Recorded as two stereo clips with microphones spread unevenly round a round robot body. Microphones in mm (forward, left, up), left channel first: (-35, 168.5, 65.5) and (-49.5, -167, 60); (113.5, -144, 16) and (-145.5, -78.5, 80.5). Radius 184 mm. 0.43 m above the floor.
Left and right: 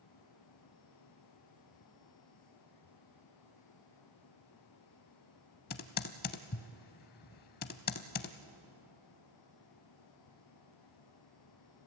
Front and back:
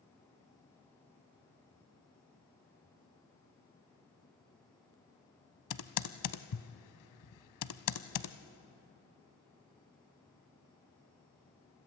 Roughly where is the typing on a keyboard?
Ahead left.